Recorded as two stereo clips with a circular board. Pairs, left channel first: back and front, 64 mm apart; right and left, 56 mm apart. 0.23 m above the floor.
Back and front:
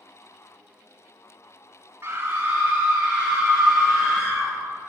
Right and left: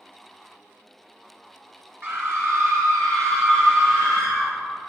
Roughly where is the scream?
Ahead left.